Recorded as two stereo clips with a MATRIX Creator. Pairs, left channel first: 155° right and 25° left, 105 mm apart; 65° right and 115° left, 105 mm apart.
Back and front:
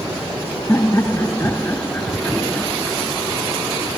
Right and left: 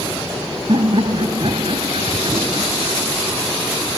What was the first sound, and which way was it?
Laughter, 140° left.